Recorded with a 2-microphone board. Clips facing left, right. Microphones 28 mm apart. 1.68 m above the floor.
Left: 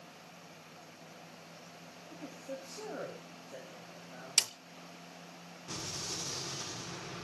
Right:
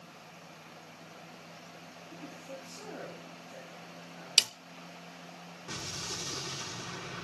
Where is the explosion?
10° right (ahead or behind), 7.5 m.